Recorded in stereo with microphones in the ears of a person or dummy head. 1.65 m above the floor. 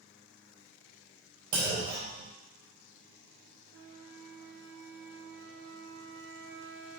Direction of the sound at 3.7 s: 55° right (ahead or behind).